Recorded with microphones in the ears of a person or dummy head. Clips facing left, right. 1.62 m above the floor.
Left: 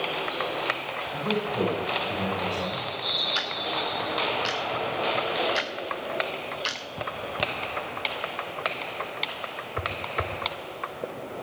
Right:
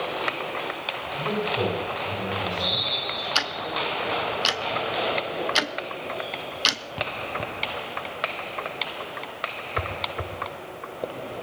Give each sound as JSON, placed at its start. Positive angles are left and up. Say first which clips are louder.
{"t": 1.1, "sound": "a man speaking", "louder": "right 1 dB", "side_deg": 5, "distance_m": 8.5}
{"t": 3.4, "sound": "ticking", "louder": "right 1 dB", "side_deg": -65, "distance_m": 0.8}